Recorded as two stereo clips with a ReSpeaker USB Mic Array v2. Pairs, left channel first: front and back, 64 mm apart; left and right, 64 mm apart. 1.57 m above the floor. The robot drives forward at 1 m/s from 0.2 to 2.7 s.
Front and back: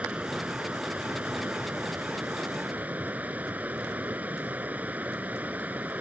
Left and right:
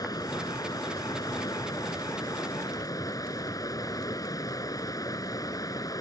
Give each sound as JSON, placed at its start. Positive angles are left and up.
{"t": 0.0, "sound": "running water", "azimuth_deg": 110}